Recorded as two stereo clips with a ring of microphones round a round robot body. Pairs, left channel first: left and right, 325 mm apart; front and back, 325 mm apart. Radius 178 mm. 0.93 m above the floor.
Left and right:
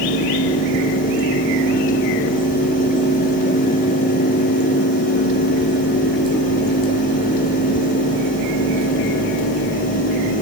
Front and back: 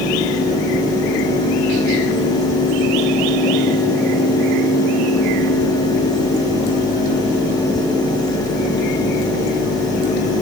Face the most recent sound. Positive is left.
No sound to turn to.